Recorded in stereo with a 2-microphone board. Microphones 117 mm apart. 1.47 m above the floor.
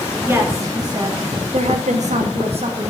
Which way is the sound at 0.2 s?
20° right (ahead or behind).